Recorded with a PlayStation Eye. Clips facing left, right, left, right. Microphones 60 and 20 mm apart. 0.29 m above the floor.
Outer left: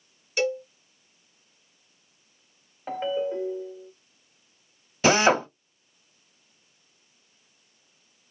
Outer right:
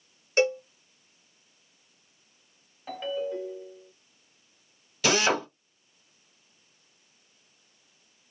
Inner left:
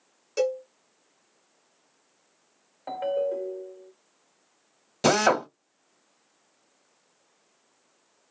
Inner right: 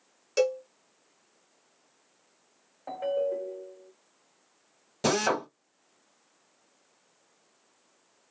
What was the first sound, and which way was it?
A cowbell, 35° right (ahead or behind).